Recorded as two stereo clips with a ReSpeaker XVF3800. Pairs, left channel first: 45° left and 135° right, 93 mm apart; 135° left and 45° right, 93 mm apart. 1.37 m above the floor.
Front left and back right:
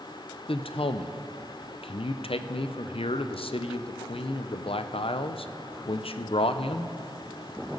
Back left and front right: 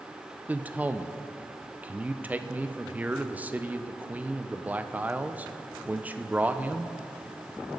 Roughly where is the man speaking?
Ahead left.